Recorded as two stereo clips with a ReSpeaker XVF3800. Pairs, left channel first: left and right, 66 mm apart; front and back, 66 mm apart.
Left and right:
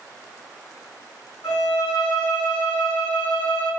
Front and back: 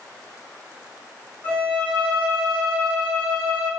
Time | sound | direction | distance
1.4 | a violin | 75° left | 3.5 m